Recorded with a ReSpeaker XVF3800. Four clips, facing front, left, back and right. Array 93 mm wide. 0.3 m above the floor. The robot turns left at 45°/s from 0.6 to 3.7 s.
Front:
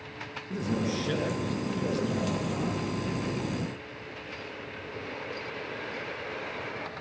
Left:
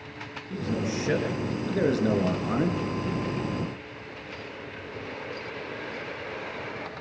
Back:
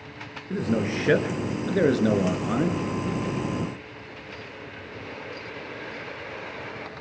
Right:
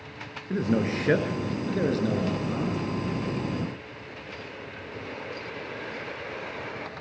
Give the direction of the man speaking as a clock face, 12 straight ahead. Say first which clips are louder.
Right 4 dB, back 5 dB; 4 o'clock.